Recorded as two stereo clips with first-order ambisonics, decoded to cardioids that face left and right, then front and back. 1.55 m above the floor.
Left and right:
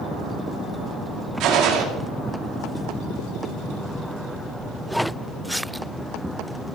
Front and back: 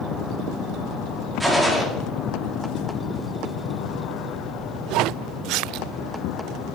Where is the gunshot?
100° right, 1.4 m.